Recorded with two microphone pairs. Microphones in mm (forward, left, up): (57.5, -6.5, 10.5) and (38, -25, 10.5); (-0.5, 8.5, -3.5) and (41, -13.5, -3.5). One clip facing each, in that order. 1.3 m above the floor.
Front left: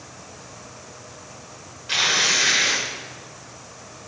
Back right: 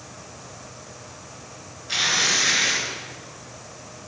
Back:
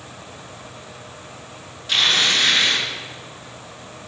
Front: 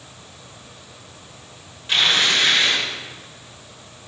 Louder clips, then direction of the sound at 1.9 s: Front left 2 dB, even; 40° left.